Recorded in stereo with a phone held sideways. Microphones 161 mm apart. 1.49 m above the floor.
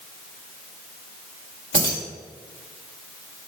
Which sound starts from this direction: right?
Keys jangling, at 1.7 s.